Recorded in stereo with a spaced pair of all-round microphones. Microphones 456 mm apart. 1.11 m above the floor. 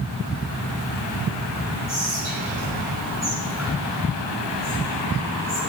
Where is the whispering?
20° left (ahead or behind), 7.5 m.